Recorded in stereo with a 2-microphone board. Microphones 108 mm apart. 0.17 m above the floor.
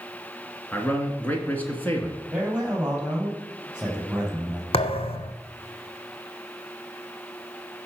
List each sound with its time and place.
0.7 s a man speaking: 15° left (ahead or behind), 2 m
2.3 s a man speaking: 10° right (ahead or behind), 4.5 m
4.7 s a thud: 75° left (ahead or behind), 0.9 m